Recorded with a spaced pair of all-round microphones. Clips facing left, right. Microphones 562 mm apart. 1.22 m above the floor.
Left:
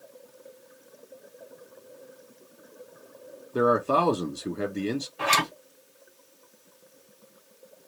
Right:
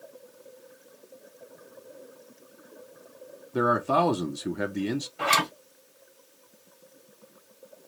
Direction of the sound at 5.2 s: Centre (ahead or behind).